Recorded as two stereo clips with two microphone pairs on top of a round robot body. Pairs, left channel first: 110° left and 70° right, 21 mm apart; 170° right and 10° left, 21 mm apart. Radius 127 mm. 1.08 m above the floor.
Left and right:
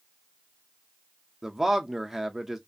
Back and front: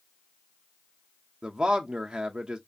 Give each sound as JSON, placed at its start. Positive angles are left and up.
{"t": 1.4, "sound": "a man speaking", "azimuth_deg": 15, "distance_m": 0.5}